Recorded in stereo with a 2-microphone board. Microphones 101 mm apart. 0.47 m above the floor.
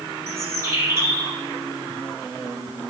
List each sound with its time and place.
0.3 s a bird: 25° right (ahead or behind), 4 m